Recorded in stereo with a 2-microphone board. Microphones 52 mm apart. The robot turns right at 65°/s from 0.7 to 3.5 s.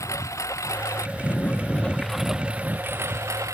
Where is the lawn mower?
80° left; by 3.6 s 90° right.